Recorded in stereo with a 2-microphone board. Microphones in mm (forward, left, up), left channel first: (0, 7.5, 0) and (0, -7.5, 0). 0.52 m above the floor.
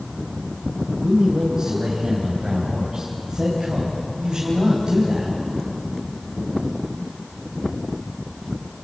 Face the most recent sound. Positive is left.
turn(degrees=-25)  # may be behind; listen again after turning